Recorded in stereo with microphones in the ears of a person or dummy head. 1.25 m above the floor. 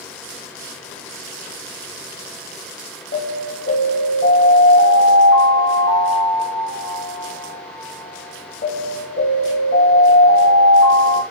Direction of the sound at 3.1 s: 50° left (ahead or behind).